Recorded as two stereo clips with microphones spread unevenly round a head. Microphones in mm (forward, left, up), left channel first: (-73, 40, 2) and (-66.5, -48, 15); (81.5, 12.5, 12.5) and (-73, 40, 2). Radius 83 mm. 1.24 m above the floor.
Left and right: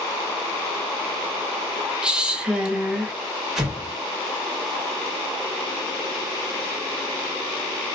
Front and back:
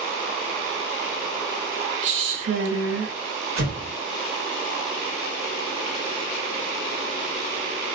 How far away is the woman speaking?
About 0.8 m.